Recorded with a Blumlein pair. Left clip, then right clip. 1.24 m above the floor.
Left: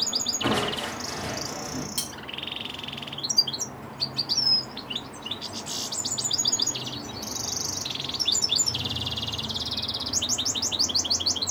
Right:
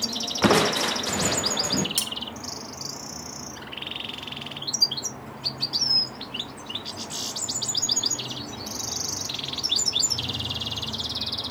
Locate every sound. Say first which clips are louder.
0.4 s crushing: right 10 dB; 55° right, 1.0 m
2.0 s cutlery clinking: right 4 dB; 70° right, 1.3 m